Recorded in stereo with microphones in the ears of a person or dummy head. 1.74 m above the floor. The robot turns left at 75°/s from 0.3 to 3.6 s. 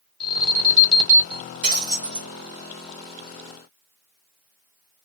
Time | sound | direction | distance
0.2 | an alarm | 10° left | 1.7 m
1.6 | breaking glass | 100° right | 1.3 m